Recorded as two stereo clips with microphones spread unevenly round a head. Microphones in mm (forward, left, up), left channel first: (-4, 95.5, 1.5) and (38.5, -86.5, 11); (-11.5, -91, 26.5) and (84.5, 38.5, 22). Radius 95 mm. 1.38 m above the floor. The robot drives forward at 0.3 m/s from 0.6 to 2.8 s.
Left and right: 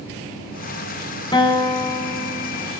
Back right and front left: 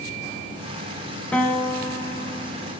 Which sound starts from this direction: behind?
A guitar, at 1.3 s.